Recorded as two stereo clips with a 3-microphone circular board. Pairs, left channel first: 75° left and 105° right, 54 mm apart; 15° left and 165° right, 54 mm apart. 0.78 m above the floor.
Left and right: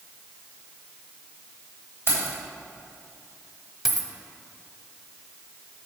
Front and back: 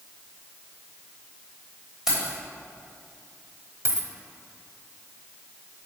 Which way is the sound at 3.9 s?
170° left.